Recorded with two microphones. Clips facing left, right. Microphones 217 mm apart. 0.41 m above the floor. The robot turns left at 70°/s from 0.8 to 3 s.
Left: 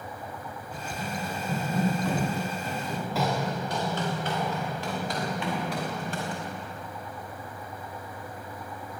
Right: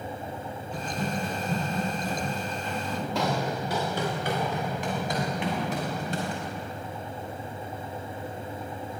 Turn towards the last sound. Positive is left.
turn(degrees=-25)  # may be behind; listen again after turning